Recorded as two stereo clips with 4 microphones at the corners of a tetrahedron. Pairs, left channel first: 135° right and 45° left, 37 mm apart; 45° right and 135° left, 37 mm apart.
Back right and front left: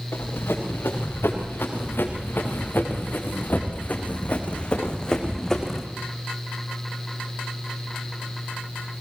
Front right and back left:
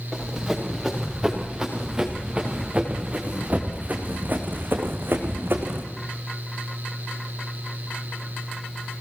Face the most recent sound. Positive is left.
turn(degrees=140)